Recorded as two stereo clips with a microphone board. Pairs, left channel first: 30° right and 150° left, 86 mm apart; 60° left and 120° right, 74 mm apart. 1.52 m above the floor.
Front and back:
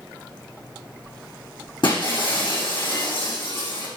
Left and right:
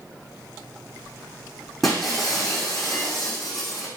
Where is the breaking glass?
30° right, 6 m.